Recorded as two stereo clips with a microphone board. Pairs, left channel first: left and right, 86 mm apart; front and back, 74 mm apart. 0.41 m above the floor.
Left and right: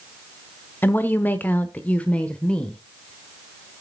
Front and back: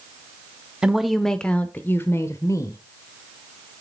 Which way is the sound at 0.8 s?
115° left.